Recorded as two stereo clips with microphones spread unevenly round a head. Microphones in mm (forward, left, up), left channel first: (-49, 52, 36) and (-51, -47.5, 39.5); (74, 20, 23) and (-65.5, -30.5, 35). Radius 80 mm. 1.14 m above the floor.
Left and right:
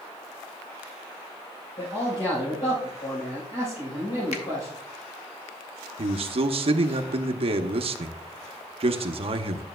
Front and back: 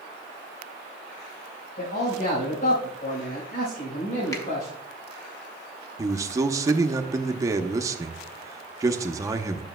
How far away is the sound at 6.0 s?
About 0.8 m.